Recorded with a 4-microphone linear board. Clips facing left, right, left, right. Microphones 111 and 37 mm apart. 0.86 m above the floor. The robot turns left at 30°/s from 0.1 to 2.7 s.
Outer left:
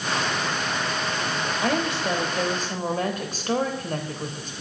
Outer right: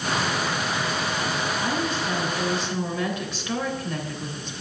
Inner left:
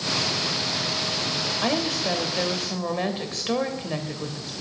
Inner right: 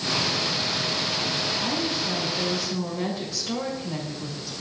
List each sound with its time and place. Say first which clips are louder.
1.6 s a woman speaking: outer left 2 dB, inner left 2 dB; 75° left, 3 m; by 4.6 s 45° left, 3 m